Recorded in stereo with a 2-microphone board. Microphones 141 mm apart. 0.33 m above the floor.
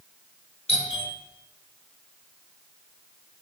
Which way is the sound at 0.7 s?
50° left (ahead or behind).